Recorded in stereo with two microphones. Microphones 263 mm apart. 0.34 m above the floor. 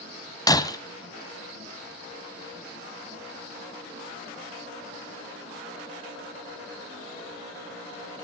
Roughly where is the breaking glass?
Centre.